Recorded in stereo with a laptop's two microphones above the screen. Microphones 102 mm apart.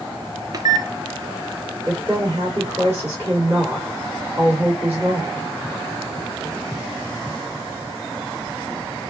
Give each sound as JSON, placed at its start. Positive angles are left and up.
{"t": 0.5, "sound": "a microwave", "side_deg": -40, "distance_m": 0.5}
{"t": 1.9, "sound": "a woman speaking", "side_deg": -30, "distance_m": 2.0}